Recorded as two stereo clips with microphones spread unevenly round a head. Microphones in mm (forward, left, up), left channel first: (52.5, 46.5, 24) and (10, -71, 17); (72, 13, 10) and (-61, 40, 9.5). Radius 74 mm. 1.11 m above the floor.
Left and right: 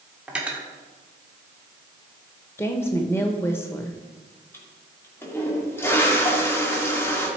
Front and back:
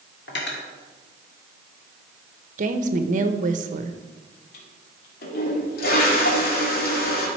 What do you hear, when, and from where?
0.3 s cutlery clinking: 30° right, 1.9 m
2.6 s a woman speaking: 145° left, 1.0 m
4.5 s a toilet flushing: straight ahead, 2 m